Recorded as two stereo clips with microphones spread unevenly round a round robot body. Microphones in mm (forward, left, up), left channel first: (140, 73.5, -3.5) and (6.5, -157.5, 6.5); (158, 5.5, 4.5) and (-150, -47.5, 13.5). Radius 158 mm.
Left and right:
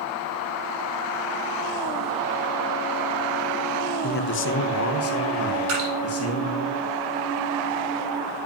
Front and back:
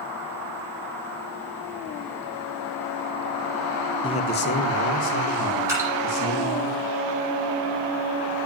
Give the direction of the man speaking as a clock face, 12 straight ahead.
9 o'clock.